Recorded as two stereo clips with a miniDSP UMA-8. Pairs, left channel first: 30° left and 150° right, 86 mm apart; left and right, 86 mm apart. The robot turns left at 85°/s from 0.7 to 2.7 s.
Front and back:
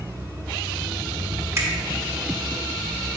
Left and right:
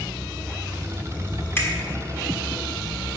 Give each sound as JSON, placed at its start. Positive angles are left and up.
{"t": 1.6, "sound": "a finger snap", "azimuth_deg": 155, "distance_m": 1.4}